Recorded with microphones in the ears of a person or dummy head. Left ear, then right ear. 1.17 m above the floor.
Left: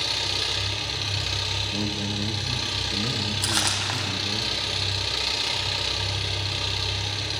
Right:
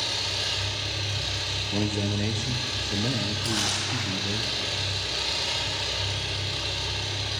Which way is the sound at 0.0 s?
40° left (ahead or behind).